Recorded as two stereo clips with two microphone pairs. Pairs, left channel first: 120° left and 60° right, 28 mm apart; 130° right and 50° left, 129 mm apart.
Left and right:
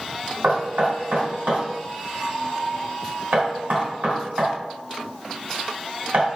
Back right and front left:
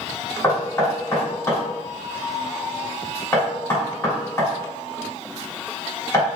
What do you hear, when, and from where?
0.4 s knocking: 60° right, 1.8 m